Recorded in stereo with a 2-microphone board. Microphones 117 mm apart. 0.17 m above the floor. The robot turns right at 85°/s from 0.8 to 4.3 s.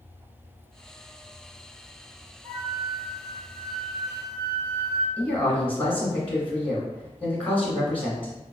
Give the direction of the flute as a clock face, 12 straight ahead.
11 o'clock.